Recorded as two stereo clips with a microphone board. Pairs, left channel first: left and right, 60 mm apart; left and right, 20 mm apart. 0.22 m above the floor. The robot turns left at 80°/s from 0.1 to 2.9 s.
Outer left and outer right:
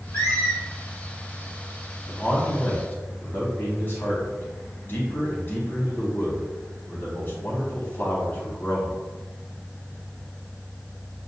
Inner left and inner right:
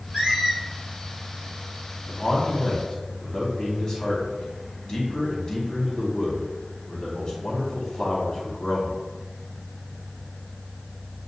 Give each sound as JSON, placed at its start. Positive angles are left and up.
{"t": 0.1, "sound": "a squeak", "azimuth_deg": -70, "distance_m": 1.9}
{"t": 2.1, "sound": "a man speaking", "side_deg": 15, "distance_m": 1.2}